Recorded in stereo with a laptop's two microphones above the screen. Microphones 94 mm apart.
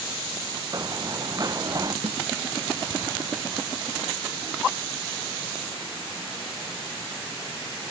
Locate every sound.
0.7 s running footsteps: 40° right (ahead or behind); by 1.9 s 35° right (ahead or behind)
2.0 s a snare drum: 80° right